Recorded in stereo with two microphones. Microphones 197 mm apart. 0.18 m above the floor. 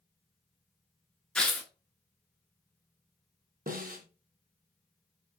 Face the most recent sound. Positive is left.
turn(degrees=-50)  # may be behind; listen again after turning